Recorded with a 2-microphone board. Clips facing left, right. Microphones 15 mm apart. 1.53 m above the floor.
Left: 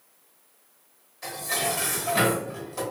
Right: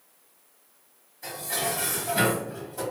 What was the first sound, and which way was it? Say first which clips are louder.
Dishes clattering: left 2 dB; 55° left (ahead or behind).